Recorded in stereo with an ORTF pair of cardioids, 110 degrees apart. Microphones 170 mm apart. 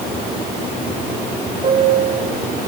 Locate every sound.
1.6 s a piano: 35° right, 3.5 m